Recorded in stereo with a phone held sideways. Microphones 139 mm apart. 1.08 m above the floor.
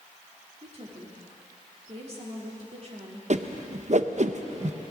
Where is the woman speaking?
50° right (ahead or behind), 3 m.